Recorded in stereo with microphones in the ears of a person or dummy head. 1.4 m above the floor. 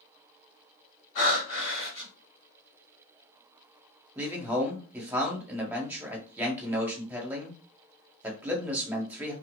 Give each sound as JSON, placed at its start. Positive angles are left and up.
{"t": 1.1, "sound": "breathing", "side_deg": 45, "distance_m": 1.3}
{"t": 4.2, "sound": "a man speaking", "side_deg": -10, "distance_m": 0.8}